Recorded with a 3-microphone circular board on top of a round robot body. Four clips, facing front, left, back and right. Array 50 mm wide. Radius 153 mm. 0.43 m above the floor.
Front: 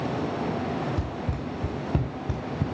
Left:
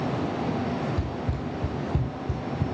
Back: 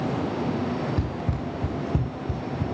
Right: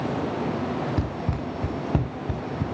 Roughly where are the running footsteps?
Right.